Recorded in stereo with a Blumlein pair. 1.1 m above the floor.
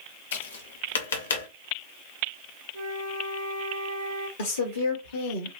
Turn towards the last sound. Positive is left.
turn(degrees=65)